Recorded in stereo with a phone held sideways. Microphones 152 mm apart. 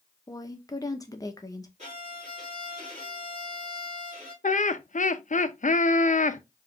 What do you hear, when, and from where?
0.3 s a woman speaking: 25° left (ahead or behind), 0.6 m
1.8 s a violin: 50° right (ahead or behind), 2.5 m
4.4 s laughter: 55° left (ahead or behind), 0.5 m